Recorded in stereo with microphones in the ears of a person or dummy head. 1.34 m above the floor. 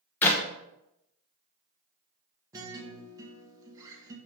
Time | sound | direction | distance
0.2 | a clap | 10° left (ahead or behind) | 0.6 m
2.5 | a guitar | 15° right (ahead or behind) | 0.8 m